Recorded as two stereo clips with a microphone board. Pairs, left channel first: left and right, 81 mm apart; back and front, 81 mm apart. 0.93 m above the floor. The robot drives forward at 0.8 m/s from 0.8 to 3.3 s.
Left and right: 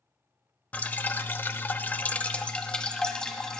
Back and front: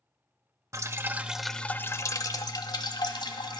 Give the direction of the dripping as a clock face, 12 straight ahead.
11 o'clock.